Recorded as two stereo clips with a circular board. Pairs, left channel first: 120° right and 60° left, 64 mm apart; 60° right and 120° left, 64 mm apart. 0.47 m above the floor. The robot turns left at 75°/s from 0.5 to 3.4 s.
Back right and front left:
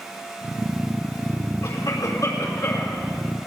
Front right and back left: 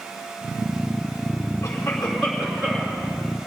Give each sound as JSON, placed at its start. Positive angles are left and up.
{"t": 1.6, "sound": "a cough", "azimuth_deg": -105, "distance_m": 5.0}